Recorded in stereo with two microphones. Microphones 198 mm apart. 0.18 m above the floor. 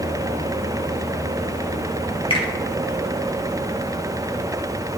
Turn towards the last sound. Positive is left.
turn(degrees=25)  # may be behind; listen again after turning